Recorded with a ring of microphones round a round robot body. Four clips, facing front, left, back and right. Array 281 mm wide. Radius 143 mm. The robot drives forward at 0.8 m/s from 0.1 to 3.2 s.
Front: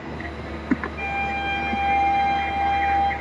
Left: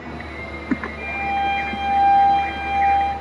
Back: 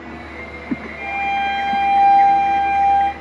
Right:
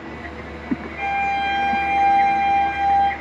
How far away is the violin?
About 0.6 m.